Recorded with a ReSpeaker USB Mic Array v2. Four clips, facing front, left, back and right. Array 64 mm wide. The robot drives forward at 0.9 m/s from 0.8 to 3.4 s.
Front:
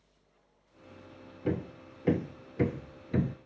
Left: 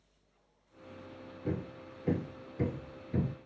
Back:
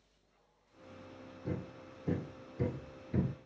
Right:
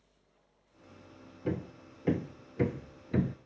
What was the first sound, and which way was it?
Hammering, 20° right.